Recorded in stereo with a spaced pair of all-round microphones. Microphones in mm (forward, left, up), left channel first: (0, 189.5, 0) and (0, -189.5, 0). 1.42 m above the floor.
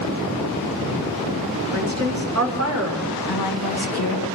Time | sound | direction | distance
1.7 | a woman speaking | 45° right (ahead or behind) | 4 m
3.3 | a woman speaking | 80° left | 2.5 m